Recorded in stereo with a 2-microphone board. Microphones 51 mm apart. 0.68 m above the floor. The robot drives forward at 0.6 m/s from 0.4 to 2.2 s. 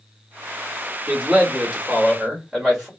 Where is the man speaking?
15° right (ahead or behind), 1.5 m; by 2.9 s 10° right (ahead or behind), 2 m.